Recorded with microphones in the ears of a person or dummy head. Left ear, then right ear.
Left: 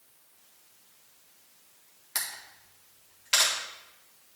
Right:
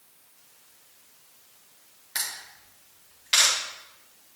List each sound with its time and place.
2.1 s a camera shutter: 5° left (ahead or behind), 1.5 m